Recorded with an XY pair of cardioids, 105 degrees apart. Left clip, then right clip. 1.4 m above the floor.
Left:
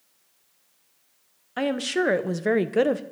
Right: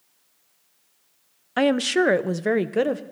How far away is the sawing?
I don't hear sawing.